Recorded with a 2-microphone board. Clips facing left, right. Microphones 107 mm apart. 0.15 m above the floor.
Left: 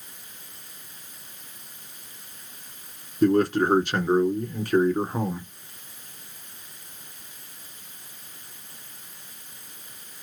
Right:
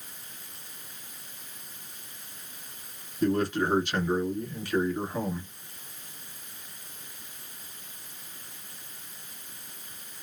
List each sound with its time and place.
3.2 s a man speaking: 40° left (ahead or behind), 2 m